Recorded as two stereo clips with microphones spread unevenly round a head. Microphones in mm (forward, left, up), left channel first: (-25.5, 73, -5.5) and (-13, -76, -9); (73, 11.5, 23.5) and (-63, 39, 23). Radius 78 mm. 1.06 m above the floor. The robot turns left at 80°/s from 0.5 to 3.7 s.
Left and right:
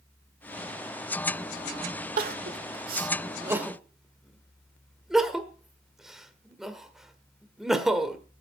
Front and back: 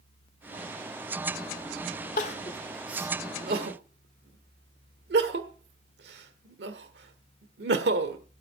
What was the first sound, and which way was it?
Crying, 50° right.